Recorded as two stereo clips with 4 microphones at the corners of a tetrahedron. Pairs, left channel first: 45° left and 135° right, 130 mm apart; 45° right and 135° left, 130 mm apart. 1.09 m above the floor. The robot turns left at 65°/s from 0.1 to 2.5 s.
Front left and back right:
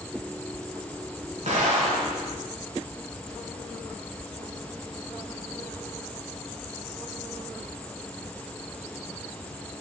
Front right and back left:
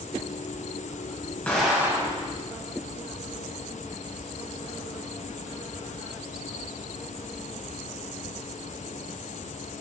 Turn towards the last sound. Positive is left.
turn(degrees=170)